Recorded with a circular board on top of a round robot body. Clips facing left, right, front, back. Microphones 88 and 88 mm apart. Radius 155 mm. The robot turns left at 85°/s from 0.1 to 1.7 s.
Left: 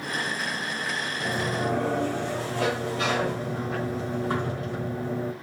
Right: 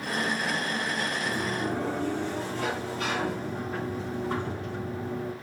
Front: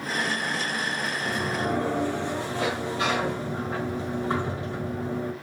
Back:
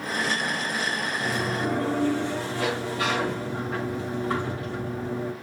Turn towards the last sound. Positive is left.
turn(degrees=70)